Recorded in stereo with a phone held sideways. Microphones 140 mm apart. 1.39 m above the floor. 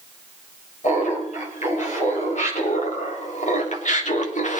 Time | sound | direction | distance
0.8 | laughter | 60° left (ahead or behind) | 6 m